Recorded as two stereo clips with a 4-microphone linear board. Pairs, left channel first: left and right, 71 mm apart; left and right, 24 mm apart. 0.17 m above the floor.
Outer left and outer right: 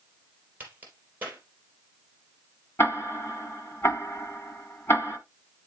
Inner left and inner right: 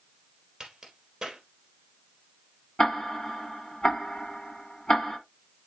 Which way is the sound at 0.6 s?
25° right (ahead or behind).